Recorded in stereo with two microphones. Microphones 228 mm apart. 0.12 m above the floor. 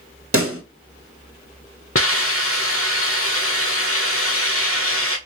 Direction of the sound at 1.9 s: 75° left (ahead or behind).